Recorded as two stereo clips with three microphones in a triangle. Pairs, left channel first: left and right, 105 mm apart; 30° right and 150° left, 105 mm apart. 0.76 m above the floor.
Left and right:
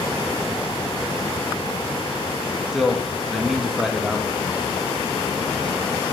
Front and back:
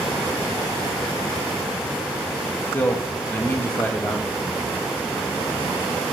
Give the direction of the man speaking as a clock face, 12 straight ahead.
12 o'clock.